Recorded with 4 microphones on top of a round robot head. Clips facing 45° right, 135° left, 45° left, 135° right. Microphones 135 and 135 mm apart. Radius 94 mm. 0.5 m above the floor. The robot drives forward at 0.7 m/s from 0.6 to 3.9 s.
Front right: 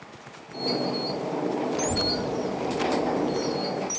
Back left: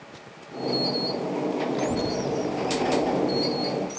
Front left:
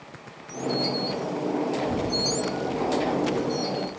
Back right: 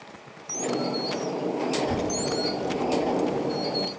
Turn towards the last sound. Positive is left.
turn(degrees=-165)